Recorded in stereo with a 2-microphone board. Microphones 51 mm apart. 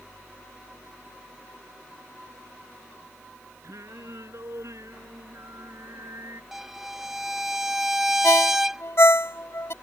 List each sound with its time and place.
3.6 s singing: 75° right (ahead or behind)
6.5 s a violin: 5° right (ahead or behind)
8.2 s a ringtone: 60° left (ahead or behind)